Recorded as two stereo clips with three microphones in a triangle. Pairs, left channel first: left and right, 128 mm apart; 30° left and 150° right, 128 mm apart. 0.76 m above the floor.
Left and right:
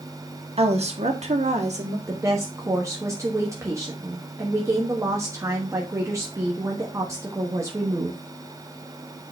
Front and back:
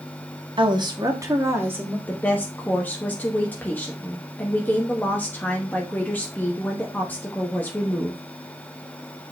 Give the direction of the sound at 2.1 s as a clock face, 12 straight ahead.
1 o'clock.